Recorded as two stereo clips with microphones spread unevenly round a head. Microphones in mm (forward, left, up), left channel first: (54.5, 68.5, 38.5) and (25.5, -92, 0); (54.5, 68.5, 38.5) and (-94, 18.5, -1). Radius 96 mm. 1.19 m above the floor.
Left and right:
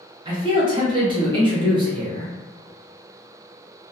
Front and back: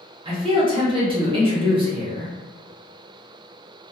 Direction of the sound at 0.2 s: 135° right.